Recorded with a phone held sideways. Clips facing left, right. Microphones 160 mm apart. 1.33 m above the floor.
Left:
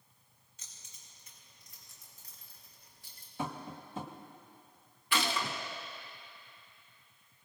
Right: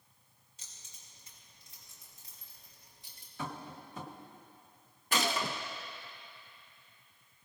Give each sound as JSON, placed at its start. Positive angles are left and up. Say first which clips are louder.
{"t": 0.6, "sound": "keys jangling", "louder": "right 1 dB", "side_deg": -35, "distance_m": 6.0}
{"t": 3.4, "sound": "tapping", "louder": "left 3 dB", "side_deg": 25, "distance_m": 1.8}
{"t": 5.1, "sound": "a gunshot", "louder": "right 1 dB", "side_deg": -45, "distance_m": 1.3}